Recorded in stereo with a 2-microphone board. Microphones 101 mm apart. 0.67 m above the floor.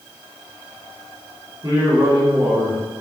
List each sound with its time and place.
1.6 s a man speaking: 40° right (ahead or behind), 1.8 m